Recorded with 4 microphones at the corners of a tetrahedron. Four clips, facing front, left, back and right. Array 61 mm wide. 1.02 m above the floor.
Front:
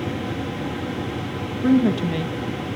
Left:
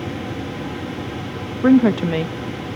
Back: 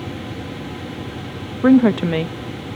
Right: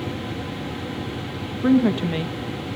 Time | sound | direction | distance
1.6 | a woman speaking | 150° left | 1.3 m